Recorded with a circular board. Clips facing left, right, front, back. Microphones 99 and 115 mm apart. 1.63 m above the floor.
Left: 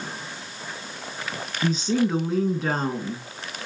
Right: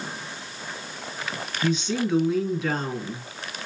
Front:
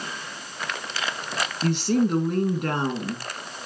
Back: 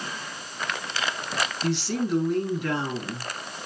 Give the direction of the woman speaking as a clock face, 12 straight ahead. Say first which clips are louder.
Left 3 dB, front 7 dB; 11 o'clock.